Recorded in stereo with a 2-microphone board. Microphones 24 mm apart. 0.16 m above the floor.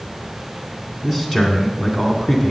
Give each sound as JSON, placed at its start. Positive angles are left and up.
{"t": 1.0, "sound": "a man speaking", "side_deg": -5, "distance_m": 1.8}